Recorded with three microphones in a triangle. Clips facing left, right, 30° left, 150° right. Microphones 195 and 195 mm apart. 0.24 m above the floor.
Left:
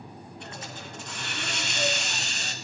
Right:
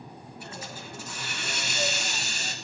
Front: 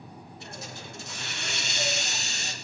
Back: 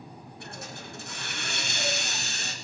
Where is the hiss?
170° right, 2.5 m.